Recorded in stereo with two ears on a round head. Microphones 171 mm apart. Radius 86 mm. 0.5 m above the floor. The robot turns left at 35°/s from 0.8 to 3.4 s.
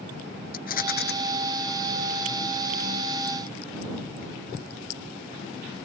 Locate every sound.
0.5 s a rattle: 50° left (ahead or behind); by 1.1 s 60° left (ahead or behind)